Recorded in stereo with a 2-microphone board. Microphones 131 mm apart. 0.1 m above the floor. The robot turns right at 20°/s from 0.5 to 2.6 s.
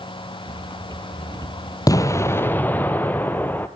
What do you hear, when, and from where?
1.9 s an explosion: 25° left (ahead or behind), 0.8 m; by 3.7 s 15° left (ahead or behind), 0.8 m